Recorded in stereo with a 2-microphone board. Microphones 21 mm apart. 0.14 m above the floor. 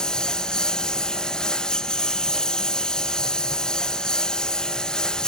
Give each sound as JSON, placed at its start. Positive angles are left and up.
{"t": 0.0, "sound": "a lawn mower", "side_deg": 35}